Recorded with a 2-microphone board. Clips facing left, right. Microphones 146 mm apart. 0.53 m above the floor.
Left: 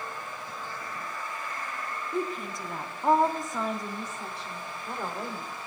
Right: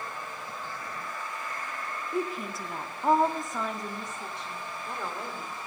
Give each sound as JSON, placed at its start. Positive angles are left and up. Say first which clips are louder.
{"t": 2.1, "sound": "a woman speaking", "louder": "even", "side_deg": -5, "distance_m": 0.7}